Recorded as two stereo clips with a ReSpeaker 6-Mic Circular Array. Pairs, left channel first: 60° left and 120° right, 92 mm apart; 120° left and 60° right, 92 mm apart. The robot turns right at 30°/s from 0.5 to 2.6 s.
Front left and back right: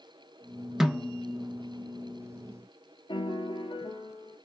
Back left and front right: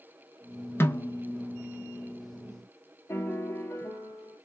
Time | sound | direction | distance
0.8 | a snare drum | 160° left | 0.7 m
3.1 | a piano | 60° left | 0.7 m